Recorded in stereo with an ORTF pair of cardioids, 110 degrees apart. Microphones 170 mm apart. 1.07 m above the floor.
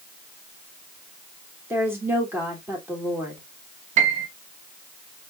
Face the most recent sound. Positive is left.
turn(degrees=-45)